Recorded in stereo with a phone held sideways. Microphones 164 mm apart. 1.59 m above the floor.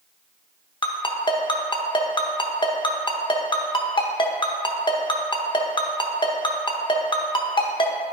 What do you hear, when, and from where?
0.8 s a ringtone: 30° left (ahead or behind), 0.8 m